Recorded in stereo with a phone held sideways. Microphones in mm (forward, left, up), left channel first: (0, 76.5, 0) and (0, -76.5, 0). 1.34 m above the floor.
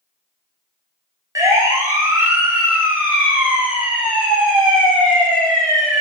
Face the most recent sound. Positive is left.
turn(degrees=-5)  # may be behind; listen again after turning